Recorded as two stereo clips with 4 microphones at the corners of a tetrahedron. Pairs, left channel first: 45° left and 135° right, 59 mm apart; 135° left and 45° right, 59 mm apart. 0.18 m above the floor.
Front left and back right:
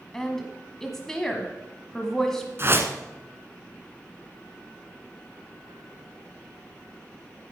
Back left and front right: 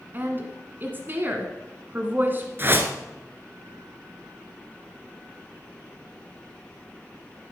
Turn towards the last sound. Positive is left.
turn(degrees=-90)